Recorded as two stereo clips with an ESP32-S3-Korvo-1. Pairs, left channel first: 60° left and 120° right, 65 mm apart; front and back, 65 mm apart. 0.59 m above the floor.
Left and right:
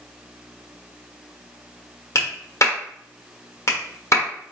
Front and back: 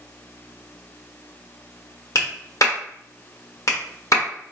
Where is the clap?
25° left, 1.2 m.